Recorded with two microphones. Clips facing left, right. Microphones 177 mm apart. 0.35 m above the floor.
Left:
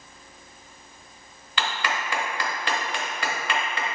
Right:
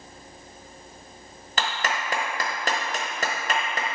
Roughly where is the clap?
Right.